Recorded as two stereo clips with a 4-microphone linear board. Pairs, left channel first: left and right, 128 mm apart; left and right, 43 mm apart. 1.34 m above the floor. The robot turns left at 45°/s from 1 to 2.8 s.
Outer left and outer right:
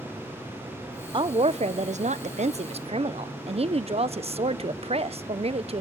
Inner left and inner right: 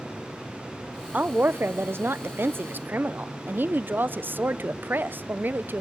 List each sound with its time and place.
1.1 s a woman speaking: 45° right, 0.7 m; by 5.8 s 120° right, 0.7 m